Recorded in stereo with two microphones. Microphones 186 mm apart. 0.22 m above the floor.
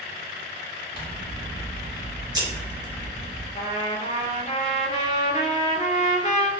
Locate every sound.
0.9 s scissors: 20° right (ahead or behind), 0.9 m
3.5 s a trumpet: 40° left (ahead or behind), 0.5 m